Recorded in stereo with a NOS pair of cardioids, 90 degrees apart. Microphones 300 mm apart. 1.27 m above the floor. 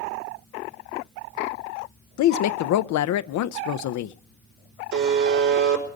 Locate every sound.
2.2 s a woman speaking: 70° left, 0.7 m
4.9 s a buzzer: 70° right, 4.5 m